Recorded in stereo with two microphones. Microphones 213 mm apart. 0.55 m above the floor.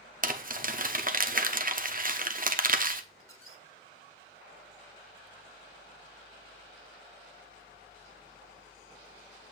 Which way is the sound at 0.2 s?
40° right (ahead or behind).